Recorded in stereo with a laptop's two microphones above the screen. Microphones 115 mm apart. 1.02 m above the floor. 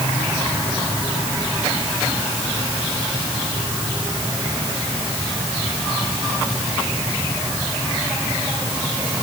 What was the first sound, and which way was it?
Only background noise.